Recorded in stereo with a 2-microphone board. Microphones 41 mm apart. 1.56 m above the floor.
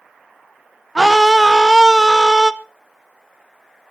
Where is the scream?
5° right (ahead or behind), 0.9 m.